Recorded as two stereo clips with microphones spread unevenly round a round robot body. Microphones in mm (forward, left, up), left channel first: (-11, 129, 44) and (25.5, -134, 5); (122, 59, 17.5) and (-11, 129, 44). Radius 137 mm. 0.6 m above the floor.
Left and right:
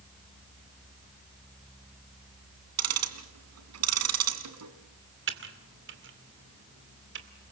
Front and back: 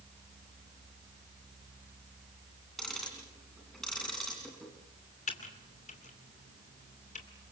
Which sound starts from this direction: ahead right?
Typing on a keyboard, at 5.3 s.